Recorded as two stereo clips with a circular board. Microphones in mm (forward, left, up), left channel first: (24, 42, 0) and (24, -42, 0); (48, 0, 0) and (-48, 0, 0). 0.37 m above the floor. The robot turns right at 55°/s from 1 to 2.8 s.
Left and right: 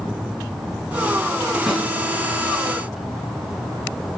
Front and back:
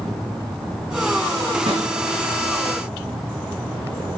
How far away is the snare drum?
About 3 m.